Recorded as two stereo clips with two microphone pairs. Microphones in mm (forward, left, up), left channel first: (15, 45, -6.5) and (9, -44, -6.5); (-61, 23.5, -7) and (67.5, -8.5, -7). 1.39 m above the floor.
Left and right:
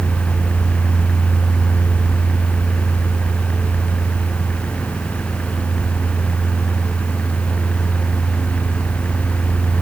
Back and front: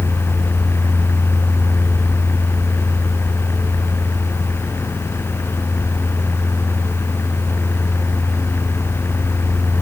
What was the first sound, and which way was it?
Only background noise.